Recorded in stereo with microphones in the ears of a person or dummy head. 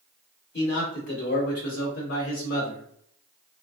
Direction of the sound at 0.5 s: 25° left (ahead or behind).